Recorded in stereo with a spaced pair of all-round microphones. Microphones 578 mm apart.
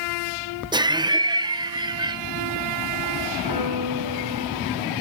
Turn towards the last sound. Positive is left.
turn(degrees=-40)  # may be behind; listen again after turning